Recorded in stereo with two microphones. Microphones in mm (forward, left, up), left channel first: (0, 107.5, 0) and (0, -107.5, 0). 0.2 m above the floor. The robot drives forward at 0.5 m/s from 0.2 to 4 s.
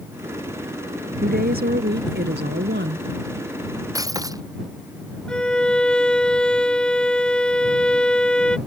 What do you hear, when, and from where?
1.2 s a woman speaking: 45° right (ahead or behind); by 3.1 s 55° right (ahead or behind)
4.0 s breaking glass: 15° right (ahead or behind)
5.3 s a violin: 5° left (ahead or behind)